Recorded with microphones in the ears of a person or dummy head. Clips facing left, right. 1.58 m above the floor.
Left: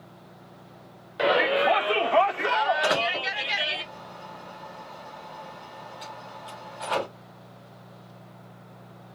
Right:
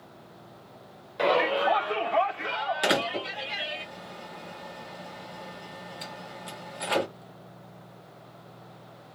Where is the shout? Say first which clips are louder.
Left 2 dB; 5° left (ahead or behind), 0.6 m; by 3.8 s 85° left, 1.4 m.